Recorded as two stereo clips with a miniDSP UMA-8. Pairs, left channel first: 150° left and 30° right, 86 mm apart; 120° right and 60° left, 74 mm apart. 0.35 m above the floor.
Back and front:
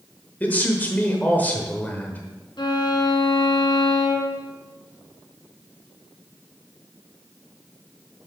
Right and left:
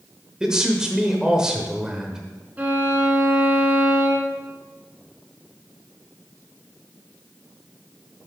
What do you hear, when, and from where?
0.4 s a man speaking: 125° left, 1.0 m
2.6 s a violin: 125° left, 1.4 m